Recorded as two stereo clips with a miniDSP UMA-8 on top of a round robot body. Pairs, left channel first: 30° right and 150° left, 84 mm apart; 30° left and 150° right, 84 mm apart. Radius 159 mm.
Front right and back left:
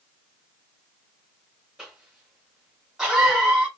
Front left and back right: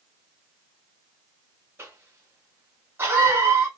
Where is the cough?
130° right, 1.3 m.